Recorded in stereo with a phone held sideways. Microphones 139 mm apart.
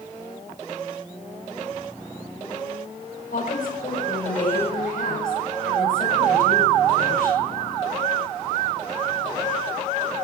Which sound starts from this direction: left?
A woman speaking, at 3.3 s.